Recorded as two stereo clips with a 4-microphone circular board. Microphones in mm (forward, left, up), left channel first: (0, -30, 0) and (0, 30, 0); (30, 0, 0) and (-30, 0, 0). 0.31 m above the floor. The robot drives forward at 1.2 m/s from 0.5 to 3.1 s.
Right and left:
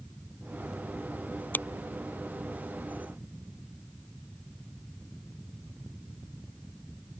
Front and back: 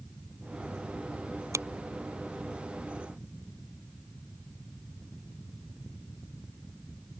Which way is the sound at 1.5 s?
145° right.